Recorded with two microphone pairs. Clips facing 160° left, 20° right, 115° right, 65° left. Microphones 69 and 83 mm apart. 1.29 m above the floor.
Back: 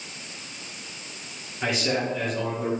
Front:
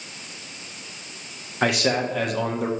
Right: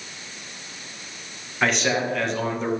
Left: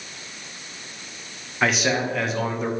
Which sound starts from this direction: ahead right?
A man speaking, at 1.6 s.